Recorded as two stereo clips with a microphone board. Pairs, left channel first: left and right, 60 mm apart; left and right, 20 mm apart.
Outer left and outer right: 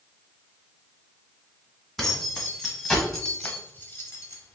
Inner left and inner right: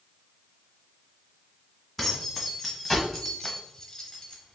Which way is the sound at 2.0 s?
Centre (ahead or behind).